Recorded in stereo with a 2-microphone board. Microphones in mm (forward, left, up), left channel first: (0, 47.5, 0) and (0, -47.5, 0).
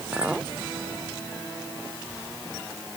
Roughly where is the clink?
Centre.